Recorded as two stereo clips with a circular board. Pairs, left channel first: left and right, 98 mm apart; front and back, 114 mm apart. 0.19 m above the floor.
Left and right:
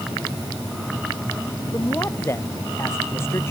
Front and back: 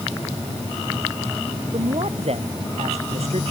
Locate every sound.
1.7 s a man speaking: 155° left